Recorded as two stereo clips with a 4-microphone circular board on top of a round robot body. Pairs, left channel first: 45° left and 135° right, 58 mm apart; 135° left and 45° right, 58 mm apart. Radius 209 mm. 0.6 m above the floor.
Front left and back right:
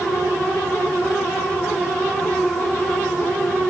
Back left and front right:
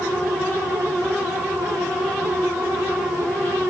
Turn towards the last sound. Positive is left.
No sound to turn to.